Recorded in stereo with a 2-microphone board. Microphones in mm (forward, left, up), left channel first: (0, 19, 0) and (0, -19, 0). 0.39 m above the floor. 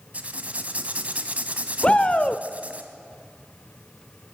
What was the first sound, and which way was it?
Writing, 35° right (ahead or behind).